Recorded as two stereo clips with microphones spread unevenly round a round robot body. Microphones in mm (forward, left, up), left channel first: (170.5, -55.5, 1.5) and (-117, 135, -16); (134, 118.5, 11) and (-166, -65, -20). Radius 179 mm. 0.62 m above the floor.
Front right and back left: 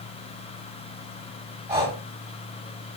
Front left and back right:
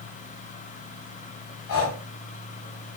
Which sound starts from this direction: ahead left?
Breathing, at 1.7 s.